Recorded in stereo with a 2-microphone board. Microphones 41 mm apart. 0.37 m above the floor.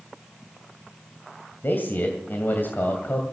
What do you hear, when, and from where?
1.6 s a man speaking: 55° left (ahead or behind), 2 m